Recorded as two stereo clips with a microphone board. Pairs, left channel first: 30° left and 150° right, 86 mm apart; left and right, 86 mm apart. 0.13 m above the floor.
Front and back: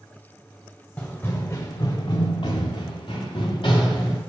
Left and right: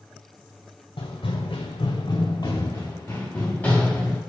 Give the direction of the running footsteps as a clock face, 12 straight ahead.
9 o'clock.